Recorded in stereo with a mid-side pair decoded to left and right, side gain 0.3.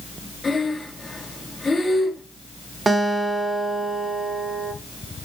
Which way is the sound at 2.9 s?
40° right.